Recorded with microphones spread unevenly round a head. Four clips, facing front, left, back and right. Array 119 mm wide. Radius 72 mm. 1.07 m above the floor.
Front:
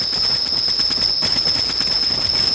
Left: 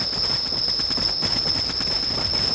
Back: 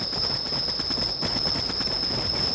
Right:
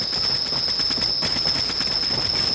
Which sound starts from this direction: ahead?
An insect, at 0.0 s.